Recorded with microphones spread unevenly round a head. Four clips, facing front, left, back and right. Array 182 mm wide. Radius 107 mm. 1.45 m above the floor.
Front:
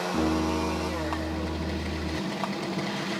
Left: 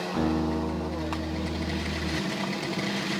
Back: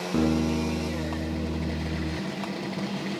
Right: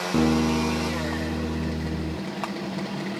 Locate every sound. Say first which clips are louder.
0.1 s a guitar: right 5 dB, back 3 dB; 130° right, 7.5 m